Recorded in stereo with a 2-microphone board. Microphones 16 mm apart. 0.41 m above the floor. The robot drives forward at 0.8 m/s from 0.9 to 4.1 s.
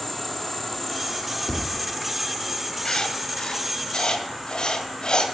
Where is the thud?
45° left (ahead or behind), 1.1 m; by 1.9 s 55° left (ahead or behind), 1.0 m.